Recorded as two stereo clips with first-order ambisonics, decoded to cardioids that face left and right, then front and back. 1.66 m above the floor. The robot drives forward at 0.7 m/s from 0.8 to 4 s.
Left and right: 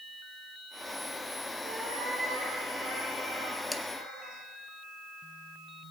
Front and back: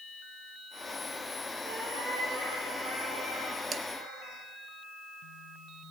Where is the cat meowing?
120° right, 9.5 m; by 4.4 s 130° right, 10 m.